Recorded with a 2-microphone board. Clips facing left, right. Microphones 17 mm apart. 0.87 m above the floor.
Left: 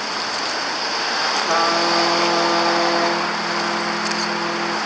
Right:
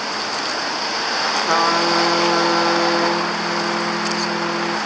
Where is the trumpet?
35° right (ahead or behind), 1.4 m.